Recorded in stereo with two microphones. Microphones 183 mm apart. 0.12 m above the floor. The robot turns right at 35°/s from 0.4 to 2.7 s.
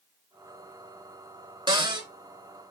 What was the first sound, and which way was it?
A cupboard door, 25° right (ahead or behind).